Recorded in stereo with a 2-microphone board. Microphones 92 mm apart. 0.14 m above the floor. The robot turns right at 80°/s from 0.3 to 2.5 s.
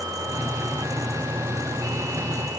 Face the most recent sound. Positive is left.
No sound to turn to.